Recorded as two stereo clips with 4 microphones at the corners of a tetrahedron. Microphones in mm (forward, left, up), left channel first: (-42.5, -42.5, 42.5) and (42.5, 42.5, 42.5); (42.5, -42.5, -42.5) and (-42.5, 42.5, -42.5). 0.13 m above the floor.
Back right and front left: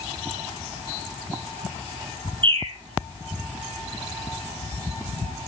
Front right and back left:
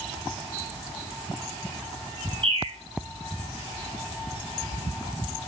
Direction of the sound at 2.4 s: 90° left.